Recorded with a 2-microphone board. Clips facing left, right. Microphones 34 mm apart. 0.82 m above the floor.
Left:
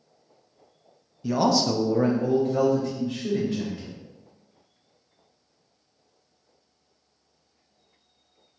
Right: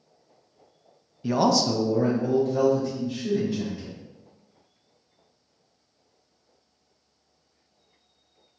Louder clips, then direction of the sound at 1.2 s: Even; 30° right (ahead or behind).